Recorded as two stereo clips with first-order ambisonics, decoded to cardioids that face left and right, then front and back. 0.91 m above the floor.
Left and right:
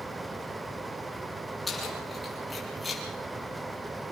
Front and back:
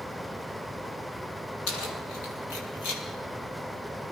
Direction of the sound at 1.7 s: 15° left.